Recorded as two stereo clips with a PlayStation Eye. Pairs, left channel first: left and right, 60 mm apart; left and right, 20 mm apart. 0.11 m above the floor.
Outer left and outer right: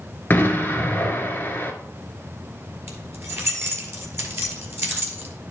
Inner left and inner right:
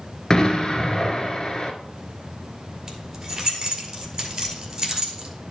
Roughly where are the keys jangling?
Right.